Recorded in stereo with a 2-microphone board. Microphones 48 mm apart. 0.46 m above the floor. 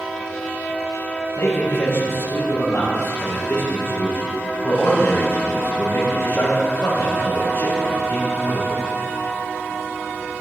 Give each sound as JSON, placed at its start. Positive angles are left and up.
{"t": 1.4, "sound": "a man speaking", "side_deg": 65, "distance_m": 2.5}